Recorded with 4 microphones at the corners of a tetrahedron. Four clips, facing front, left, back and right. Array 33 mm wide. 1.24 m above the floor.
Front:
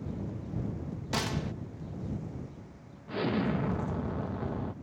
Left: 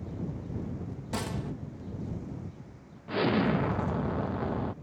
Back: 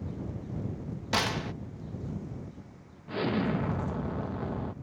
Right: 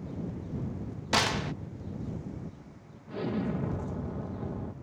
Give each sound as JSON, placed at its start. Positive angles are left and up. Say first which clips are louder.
{"t": 1.1, "sound": "a gunshot", "louder": "right 8 dB, back 4 dB", "azimuth_deg": -120}
{"t": 3.1, "sound": "an explosion", "louder": "left 6 dB, back 1 dB", "azimuth_deg": 85}